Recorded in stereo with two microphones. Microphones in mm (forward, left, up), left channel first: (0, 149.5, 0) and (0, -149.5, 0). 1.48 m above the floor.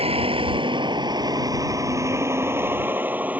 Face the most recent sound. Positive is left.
turn(degrees=-5)  # may be behind; listen again after turning